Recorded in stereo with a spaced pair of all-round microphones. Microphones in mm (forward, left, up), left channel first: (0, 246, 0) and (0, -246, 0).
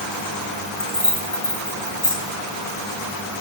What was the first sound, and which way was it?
Keys jangling, 80° left.